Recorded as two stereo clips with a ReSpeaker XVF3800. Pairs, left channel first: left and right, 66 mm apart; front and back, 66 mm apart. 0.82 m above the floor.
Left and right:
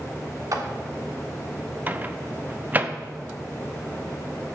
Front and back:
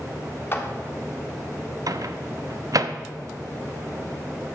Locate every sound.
0.5 s a clap: 55° right, 1.4 m
1.9 s a microwave: 150° right, 0.6 m